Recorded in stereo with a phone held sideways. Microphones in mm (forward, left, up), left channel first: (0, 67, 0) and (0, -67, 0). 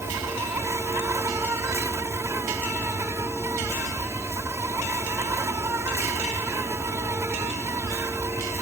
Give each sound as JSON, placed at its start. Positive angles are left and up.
{"t": 0.0, "sound": "an insect", "side_deg": -20}